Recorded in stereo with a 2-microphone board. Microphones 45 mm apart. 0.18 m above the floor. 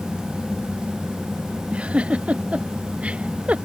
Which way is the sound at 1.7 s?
30° right (ahead or behind).